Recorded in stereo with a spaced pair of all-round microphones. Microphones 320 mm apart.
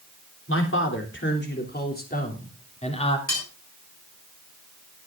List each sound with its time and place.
0.5 s a man speaking: 40° left (ahead or behind), 3.5 m; by 3.2 s 15° left (ahead or behind), 3 m
3.3 s cutlery clinking: 55° left (ahead or behind), 5.5 m